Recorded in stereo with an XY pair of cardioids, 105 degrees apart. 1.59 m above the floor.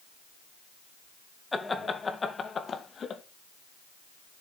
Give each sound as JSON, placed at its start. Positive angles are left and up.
{"t": 1.5, "sound": "laughter", "azimuth_deg": 20, "distance_m": 2.0}